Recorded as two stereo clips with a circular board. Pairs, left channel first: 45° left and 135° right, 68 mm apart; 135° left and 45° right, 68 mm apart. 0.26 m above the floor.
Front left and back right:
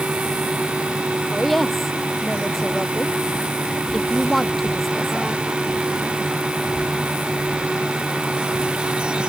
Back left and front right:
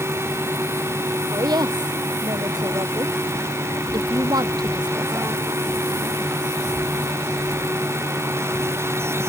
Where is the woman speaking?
45° right.